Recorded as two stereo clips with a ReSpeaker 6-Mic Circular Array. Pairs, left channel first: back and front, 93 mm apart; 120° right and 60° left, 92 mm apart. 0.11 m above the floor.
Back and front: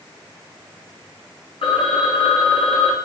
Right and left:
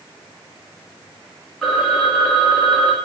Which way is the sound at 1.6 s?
155° left.